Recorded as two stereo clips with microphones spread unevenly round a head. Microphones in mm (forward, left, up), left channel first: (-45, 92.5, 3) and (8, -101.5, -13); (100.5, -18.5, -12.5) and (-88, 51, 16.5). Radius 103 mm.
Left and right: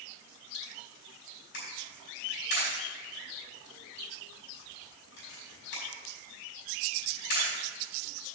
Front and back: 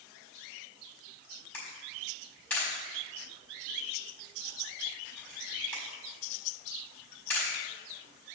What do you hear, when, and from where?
1.5 s a camera shutter: 65° left, 5 m